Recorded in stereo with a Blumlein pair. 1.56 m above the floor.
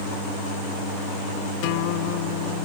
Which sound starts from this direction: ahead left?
A guitar, at 1.6 s.